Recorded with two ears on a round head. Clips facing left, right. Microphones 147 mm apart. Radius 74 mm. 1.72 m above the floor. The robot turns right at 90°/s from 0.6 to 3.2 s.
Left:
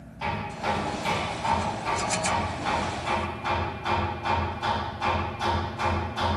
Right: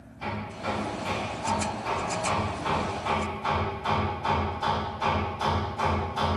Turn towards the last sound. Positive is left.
turn(degrees=-50)